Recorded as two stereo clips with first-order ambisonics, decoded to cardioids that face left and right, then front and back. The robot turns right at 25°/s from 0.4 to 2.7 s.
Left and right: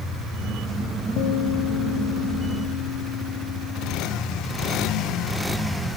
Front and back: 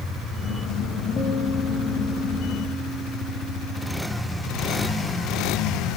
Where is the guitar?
65° left, 4 m; by 4.0 s 100° left, 4 m.